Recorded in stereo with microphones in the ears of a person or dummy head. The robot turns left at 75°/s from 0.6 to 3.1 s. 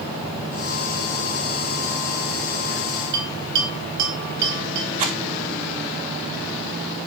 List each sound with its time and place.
3.1 s a bell: 60° right (ahead or behind), 3 m
5.0 s a rattle: 40° right (ahead or behind), 1.1 m